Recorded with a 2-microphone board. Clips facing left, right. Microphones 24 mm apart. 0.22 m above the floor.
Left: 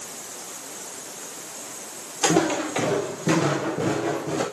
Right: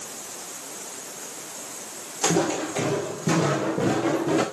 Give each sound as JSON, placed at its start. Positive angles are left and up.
{"t": 2.2, "sound": "footsteps", "side_deg": 45, "distance_m": 3.0}